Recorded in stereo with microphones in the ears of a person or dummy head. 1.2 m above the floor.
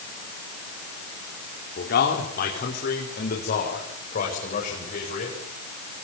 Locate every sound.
1.8 s a man speaking: 50° left (ahead or behind), 4 m; by 5.4 s 40° left (ahead or behind), 7.5 m